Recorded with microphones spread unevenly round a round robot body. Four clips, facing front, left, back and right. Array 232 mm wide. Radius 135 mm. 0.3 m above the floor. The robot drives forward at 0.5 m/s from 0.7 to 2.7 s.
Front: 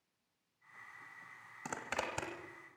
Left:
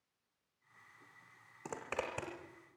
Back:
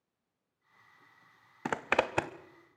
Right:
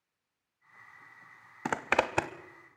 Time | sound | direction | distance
1.6 | a zipper | 130° right | 0.7 m